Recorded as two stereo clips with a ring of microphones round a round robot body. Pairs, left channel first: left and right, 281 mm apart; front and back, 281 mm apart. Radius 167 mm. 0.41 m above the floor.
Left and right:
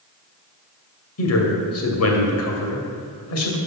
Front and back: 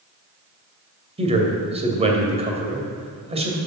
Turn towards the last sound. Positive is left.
turn(degrees=115)